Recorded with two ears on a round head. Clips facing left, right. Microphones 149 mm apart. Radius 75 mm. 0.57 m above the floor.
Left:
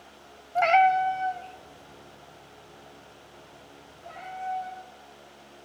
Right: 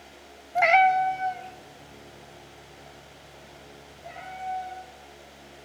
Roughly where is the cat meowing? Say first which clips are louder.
Even; centre.